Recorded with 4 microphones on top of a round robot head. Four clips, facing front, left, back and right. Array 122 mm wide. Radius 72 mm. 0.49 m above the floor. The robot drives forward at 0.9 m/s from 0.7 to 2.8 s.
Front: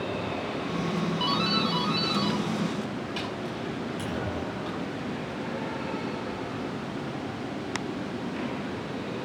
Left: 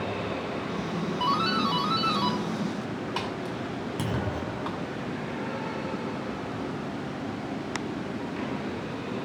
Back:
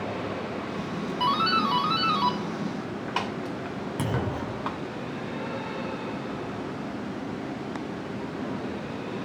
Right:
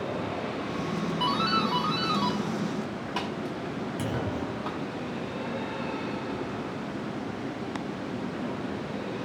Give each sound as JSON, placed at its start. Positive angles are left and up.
{"t": 1.2, "sound": "a doorbell", "azimuth_deg": 150, "distance_m": 1.8}
{"t": 4.0, "sound": "a clunk", "azimuth_deg": 160, "distance_m": 1.3}